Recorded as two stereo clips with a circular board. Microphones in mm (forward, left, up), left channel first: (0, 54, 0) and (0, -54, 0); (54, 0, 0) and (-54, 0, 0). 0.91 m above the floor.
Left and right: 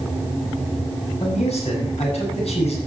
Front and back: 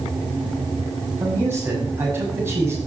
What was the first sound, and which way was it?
A man speaking, 110° left.